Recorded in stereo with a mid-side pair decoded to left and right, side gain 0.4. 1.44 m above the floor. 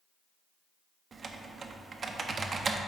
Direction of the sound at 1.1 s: 50° right.